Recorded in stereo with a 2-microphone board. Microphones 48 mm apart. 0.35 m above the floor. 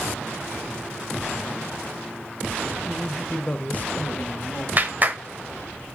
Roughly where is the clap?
Right.